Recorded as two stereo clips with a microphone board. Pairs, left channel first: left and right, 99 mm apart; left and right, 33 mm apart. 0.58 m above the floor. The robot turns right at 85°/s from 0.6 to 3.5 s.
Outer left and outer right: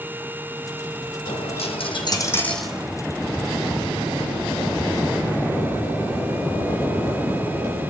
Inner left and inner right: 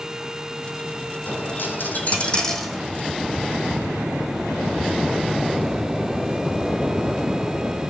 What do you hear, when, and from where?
1.3 s a dropped coin: 60° left, 2 m; by 2.9 s 160° right, 2 m